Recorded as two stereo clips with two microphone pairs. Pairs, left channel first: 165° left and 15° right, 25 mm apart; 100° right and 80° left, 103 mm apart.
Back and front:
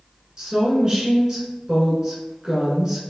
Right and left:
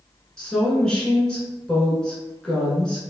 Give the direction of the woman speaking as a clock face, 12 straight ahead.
1 o'clock.